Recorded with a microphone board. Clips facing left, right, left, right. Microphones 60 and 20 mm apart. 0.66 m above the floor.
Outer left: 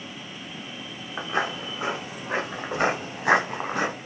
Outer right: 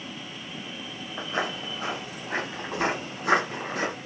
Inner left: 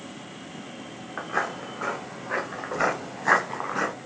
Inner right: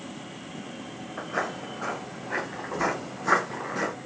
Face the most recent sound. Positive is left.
turn(degrees=75)  # may be behind; listen again after turning